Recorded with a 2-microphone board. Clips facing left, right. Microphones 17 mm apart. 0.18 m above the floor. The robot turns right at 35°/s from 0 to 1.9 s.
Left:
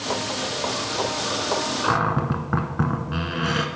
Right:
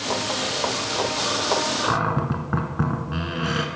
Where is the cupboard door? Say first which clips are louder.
Left 1 dB; 5° left (ahead or behind), 1.0 m.